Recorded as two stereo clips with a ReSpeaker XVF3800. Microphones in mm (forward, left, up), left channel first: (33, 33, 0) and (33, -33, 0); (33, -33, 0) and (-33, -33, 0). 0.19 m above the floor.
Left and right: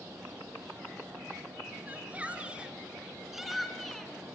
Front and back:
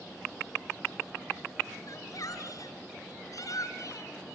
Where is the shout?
25° right, 3.5 m; by 4.4 s 15° left, 2.5 m.